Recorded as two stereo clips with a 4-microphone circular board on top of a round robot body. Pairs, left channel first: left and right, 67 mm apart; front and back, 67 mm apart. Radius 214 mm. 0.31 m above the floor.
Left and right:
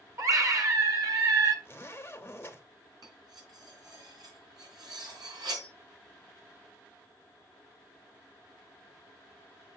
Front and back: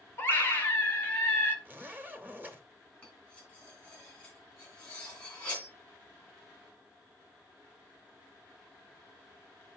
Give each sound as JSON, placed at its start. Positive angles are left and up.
{"t": 0.2, "sound": "a scream", "azimuth_deg": -60, "distance_m": 2.0}
{"t": 1.6, "sound": "a zipper", "azimuth_deg": 130, "distance_m": 1.7}
{"t": 3.0, "sound": "cutlery clinking", "azimuth_deg": -70, "distance_m": 3.0}